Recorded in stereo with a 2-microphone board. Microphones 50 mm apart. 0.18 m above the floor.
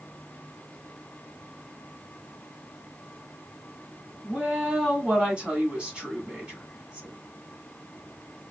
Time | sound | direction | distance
4.2 | a woman speaking | 25° right (ahead or behind) | 1.8 m